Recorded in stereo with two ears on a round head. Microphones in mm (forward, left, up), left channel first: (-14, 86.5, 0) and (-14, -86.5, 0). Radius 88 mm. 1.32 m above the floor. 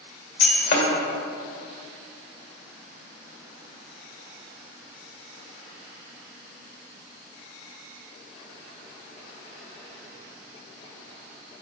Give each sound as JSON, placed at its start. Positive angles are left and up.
{"t": 0.4, "sound": "breaking glass", "side_deg": 65, "distance_m": 2.0}